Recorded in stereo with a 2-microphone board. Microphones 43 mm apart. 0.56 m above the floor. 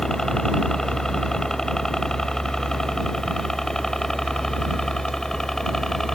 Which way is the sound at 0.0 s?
15° left (ahead or behind).